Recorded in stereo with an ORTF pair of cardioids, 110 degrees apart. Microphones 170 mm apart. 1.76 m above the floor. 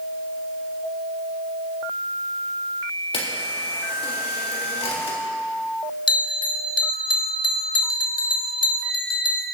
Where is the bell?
30° left, 1.1 m.